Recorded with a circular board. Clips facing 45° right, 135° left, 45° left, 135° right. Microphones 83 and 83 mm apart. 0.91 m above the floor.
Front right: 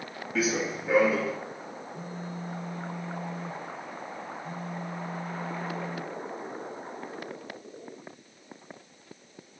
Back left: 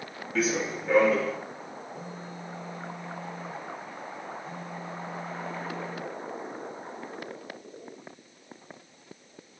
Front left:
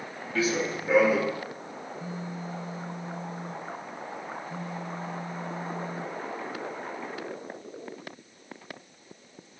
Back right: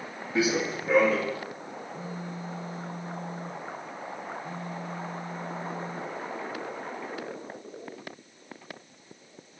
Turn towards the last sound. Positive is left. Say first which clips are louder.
# front right 2 dB, front left 2 dB
turn(degrees=-90)